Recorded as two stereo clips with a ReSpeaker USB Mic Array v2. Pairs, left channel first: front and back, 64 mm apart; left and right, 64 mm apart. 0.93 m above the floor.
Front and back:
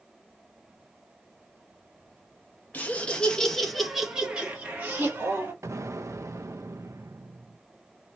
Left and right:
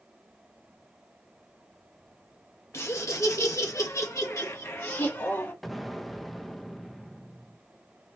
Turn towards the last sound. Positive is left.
turn(degrees=180)